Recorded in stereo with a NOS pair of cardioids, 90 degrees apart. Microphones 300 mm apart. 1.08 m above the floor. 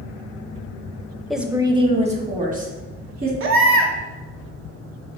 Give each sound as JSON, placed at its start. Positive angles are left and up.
{"t": 1.3, "sound": "a woman speaking", "azimuth_deg": 0, "distance_m": 0.6}
{"t": 3.4, "sound": "a baby crying", "azimuth_deg": -45, "distance_m": 0.8}